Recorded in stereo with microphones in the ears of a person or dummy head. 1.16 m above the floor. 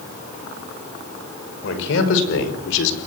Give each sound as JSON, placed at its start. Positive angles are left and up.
{"t": 1.6, "sound": "a man speaking", "side_deg": 80, "distance_m": 5.5}